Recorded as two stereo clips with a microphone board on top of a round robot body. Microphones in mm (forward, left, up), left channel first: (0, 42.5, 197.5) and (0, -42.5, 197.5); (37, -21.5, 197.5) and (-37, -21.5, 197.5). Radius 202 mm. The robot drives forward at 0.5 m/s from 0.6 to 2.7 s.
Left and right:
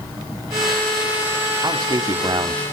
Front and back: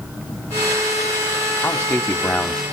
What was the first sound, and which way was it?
A man speaking, 60° right.